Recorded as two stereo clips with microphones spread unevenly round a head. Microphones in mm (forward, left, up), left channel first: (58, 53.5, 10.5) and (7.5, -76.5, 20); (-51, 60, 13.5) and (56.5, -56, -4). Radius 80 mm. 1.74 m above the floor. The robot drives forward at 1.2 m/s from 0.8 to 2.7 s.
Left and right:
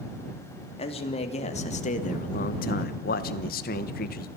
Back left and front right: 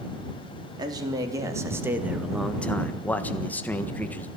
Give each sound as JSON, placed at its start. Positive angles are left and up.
{"t": 0.8, "sound": "a man speaking", "azimuth_deg": 20, "distance_m": 3.5}